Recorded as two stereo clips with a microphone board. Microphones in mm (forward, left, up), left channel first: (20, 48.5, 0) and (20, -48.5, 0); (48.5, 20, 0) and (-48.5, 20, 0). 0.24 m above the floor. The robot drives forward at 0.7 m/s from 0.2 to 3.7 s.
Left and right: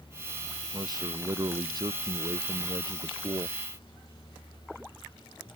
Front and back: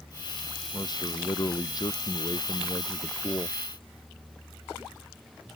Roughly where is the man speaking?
Ahead right.